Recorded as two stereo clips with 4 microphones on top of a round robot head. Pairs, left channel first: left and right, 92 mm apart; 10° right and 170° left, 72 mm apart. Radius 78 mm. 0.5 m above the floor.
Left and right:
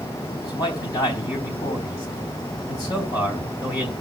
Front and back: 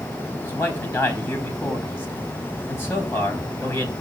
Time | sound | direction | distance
0.4 | a man speaking | 40° left | 3.5 m